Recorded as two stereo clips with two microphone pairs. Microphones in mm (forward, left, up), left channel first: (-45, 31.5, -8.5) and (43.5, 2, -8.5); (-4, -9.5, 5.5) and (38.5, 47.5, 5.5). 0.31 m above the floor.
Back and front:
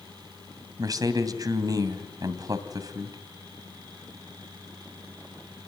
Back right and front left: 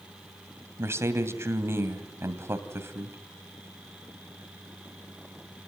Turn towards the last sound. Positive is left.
turn(degrees=15)